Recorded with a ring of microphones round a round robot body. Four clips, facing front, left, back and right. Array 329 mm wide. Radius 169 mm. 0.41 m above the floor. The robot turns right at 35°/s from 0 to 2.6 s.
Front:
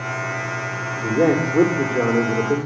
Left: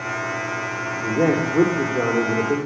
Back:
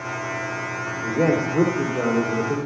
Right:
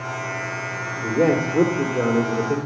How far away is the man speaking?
About 1.5 m.